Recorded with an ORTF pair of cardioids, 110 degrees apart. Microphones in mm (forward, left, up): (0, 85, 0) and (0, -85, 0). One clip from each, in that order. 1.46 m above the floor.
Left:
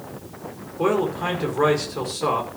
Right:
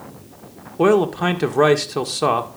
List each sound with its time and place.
0.8 s a man speaking: 55° right, 1.8 m